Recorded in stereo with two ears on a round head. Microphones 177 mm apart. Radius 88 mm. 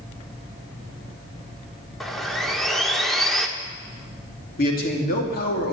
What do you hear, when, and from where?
2.0 s sawing: centre (ahead or behind), 1.2 m
4.6 s a man speaking: 45° left (ahead or behind), 3 m